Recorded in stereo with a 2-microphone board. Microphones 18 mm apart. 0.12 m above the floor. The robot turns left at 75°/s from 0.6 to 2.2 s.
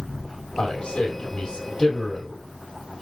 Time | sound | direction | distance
0.6 | a man speaking | 45° left (ahead or behind) | 3.5 m